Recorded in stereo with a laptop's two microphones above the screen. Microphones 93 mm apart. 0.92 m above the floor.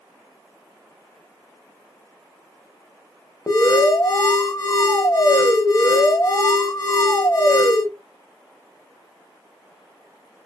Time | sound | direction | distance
3.5 | an alarm | 35° left (ahead or behind) | 0.9 m